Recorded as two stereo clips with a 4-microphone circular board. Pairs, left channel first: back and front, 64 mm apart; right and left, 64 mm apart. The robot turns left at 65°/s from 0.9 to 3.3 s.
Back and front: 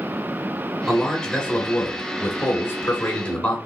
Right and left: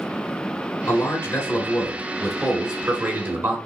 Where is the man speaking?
85° right, 1.0 m; by 3.6 s 120° left, 1.0 m.